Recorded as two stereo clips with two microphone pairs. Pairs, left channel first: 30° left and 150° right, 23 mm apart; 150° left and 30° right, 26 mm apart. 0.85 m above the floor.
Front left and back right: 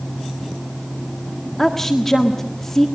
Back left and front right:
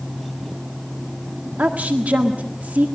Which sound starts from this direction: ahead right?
A woman speaking, at 1.6 s.